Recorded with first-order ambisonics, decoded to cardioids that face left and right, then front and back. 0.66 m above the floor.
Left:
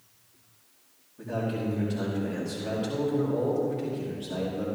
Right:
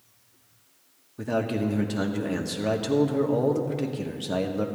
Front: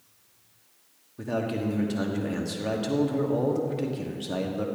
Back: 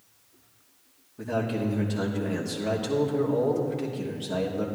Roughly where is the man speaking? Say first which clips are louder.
Right 5 dB, back 1 dB; right.